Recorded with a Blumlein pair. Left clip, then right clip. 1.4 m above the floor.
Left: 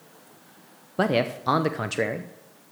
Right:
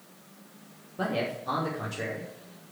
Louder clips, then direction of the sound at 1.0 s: Left 7 dB; 60° left.